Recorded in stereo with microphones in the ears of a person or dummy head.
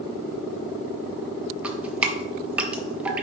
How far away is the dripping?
About 0.9 m.